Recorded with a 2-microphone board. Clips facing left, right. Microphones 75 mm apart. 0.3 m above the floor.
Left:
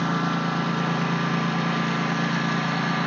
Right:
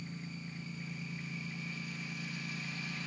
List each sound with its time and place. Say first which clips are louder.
0.0 s a lawn mower: left 22 dB; 85° left; by 3.1 s 70° left (ahead or behind)